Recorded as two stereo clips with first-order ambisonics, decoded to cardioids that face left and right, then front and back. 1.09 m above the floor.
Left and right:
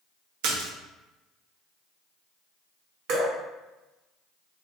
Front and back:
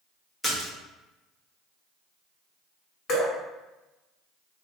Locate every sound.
0.4 s a splash: 80° right, 1.1 m
3.1 s dripping: 55° right, 1.7 m